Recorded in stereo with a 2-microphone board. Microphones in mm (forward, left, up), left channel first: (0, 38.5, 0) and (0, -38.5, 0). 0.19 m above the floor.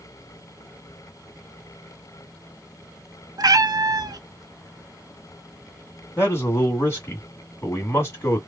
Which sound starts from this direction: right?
A cat meowing, at 3.4 s.